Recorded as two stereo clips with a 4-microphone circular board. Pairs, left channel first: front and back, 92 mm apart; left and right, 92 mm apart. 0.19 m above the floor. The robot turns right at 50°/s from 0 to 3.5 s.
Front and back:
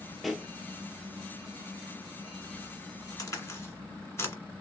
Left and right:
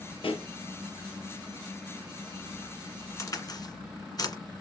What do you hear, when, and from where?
0.2 s a pop: 90° left, 0.7 m; by 0.5 s 105° left, 0.7 m
3.2 s a crack: 40° left, 1.7 m; by 4.3 s 55° left, 1.7 m